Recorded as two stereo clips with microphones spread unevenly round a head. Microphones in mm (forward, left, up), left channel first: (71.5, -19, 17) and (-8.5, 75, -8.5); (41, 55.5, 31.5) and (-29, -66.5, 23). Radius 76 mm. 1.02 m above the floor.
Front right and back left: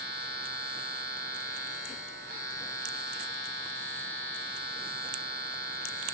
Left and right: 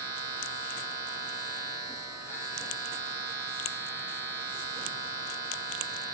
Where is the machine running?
165° left, 1.9 m.